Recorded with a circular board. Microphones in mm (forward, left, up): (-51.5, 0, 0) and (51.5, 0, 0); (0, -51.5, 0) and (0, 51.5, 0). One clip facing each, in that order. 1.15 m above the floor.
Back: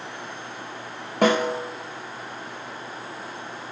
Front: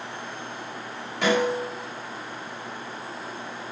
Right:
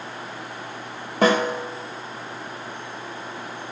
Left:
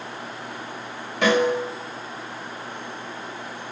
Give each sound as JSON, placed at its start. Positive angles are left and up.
{"t": 1.2, "sound": "a snare drum", "azimuth_deg": -140, "distance_m": 1.5}